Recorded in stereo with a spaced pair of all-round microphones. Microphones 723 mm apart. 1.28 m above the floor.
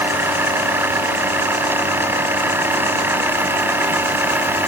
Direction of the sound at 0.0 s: 5° right (ahead or behind).